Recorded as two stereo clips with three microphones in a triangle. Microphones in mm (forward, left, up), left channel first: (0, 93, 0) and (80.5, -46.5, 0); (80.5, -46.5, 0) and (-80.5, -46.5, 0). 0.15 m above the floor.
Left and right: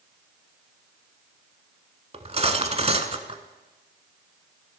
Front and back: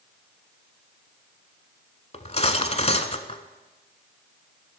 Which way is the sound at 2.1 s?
30° right.